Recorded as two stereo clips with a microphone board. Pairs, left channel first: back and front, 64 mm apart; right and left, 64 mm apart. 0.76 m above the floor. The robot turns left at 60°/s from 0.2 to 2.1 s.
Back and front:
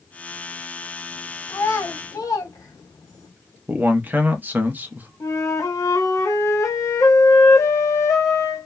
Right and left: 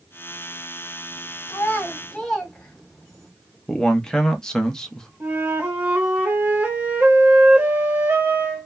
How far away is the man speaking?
About 0.6 m.